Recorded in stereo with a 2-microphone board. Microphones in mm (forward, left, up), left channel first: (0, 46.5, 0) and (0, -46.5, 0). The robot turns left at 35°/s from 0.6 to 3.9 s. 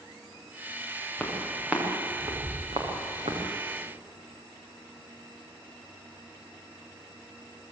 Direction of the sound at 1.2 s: 10° left (ahead or behind).